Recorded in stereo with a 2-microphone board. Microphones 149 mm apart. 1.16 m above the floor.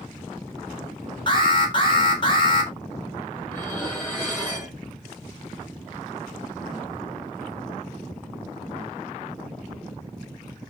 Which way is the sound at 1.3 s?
35° left (ahead or behind).